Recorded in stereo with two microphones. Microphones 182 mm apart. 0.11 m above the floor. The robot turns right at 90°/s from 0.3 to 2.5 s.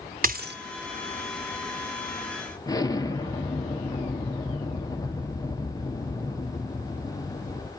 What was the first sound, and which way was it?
A dropped coin, 50° right (ahead or behind).